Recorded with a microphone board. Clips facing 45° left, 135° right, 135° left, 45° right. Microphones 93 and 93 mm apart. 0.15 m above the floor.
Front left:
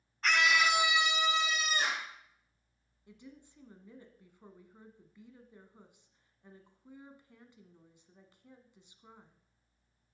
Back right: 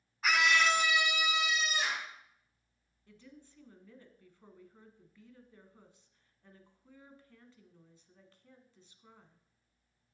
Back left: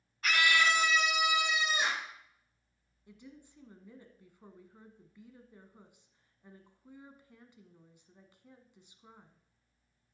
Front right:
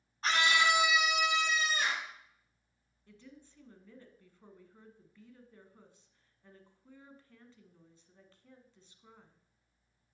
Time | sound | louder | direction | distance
0.2 | a scream | even, even | 60° right | 1.2 m
3.1 | a woman speaking | front left 2 dB, back left 2 dB | 90° left | 1.3 m